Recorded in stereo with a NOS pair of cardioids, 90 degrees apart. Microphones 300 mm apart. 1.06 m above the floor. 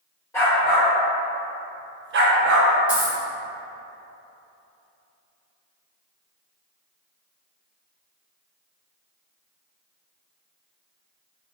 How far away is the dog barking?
About 1.3 m.